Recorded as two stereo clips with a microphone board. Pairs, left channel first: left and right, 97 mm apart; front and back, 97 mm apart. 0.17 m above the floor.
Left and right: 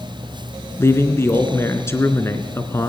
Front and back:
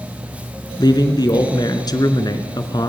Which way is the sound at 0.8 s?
35° left.